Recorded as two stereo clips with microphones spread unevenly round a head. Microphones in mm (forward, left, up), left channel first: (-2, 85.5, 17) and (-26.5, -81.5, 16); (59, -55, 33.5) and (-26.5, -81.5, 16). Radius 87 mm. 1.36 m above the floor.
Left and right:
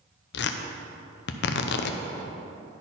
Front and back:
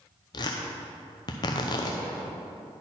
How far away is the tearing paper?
About 0.5 m.